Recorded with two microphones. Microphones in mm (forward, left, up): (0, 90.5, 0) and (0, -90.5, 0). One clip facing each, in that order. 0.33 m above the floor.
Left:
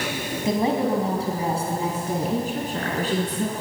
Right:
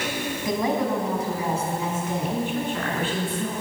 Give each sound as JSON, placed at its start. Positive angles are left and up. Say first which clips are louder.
{"t": 0.5, "sound": "a woman speaking", "louder": "left 3 dB", "side_deg": 30, "distance_m": 2.5}